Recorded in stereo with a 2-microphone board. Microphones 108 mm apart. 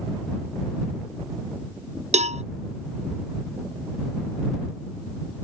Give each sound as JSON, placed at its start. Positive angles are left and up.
{"t": 2.1, "sound": "a cowbell", "side_deg": -75}